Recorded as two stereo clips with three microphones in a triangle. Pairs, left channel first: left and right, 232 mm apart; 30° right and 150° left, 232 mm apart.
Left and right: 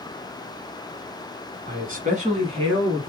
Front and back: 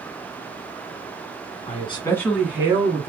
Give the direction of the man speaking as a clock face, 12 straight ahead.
2 o'clock.